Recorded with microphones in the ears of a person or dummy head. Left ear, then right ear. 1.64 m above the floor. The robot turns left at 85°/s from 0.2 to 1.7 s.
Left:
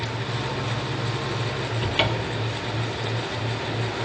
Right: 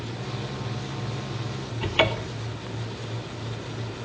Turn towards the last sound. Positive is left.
turn(degrees=-20)  # may be behind; listen again after turning